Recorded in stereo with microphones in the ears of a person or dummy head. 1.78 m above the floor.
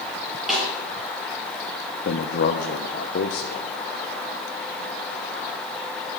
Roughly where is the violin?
I don't hear a violin.